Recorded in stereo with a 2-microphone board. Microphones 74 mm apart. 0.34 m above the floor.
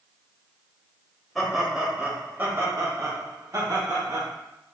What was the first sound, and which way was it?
Laughter, centre (ahead or behind).